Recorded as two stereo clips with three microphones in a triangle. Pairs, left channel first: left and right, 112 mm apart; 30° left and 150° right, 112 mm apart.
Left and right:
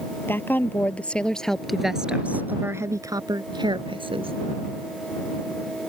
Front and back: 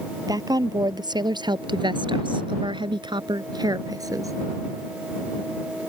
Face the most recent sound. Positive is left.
turn(degrees=-95)